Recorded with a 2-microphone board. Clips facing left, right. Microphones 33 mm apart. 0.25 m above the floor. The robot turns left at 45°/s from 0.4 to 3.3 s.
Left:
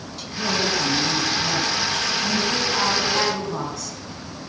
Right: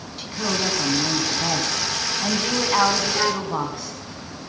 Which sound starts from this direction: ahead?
A woman speaking, at 0.2 s.